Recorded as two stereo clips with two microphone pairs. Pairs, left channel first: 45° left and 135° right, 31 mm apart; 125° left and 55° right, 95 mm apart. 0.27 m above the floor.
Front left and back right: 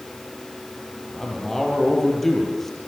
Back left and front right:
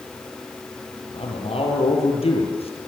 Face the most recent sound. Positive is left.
turn(degrees=125)